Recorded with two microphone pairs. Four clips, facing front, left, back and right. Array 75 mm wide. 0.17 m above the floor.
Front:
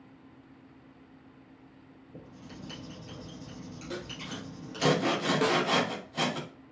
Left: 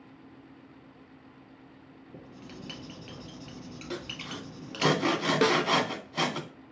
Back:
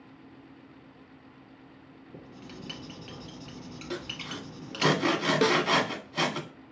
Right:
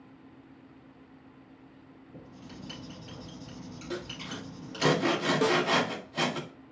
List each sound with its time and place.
2.1 s writing: 110° left, 2.5 m
3.9 s sawing: 125° left, 0.9 m
5.4 s a snare drum: 95° left, 0.7 m